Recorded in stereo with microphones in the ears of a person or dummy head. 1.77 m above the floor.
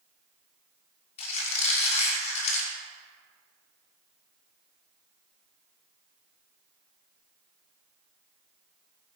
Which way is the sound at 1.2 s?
40° left (ahead or behind).